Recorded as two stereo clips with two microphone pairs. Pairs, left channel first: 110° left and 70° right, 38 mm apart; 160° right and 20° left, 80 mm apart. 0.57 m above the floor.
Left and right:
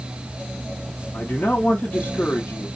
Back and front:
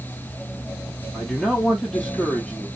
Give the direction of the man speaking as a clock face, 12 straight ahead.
8 o'clock.